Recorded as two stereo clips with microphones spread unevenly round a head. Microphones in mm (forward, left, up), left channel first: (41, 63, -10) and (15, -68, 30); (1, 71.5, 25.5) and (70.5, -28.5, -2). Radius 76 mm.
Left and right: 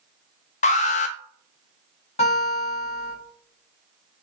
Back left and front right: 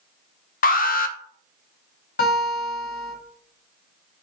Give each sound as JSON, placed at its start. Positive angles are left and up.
{"t": 0.6, "sound": "an alarm", "azimuth_deg": 115, "distance_m": 0.5}
{"t": 2.2, "sound": "a guitar", "azimuth_deg": 125, "distance_m": 1.8}